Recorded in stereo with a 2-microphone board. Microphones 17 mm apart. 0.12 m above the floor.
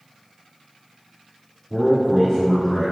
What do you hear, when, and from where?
1.7 s a man speaking: 5° right (ahead or behind), 1.5 m; by 2.9 s 30° left (ahead or behind), 1.3 m